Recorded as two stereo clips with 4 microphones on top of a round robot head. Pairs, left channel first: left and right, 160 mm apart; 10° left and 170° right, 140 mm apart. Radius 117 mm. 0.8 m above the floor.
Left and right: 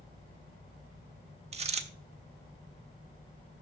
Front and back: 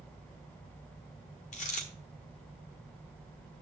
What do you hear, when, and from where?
1.5 s a dropped coin: 40° right, 1.2 m